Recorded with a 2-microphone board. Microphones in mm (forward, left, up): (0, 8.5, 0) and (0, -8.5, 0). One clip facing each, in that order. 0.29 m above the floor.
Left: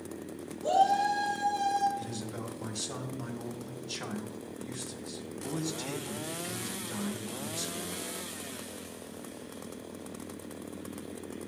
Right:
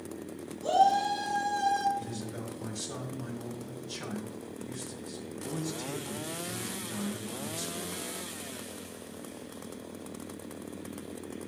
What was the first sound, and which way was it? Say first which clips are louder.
A shout: right 1 dB; 40° right (ahead or behind).